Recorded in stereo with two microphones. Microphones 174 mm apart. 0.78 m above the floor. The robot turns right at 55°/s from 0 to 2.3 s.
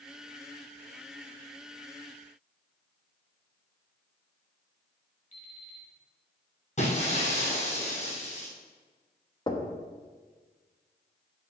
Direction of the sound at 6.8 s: 45° left (ahead or behind).